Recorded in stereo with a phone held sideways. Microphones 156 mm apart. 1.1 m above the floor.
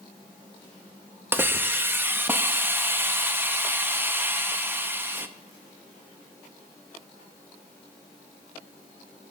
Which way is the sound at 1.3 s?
15° right (ahead or behind).